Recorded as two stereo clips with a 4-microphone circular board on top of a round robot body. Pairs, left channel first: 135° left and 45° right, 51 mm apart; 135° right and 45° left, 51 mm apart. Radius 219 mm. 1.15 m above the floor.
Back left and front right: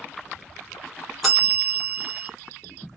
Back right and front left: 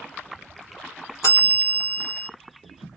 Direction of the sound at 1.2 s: 140° right.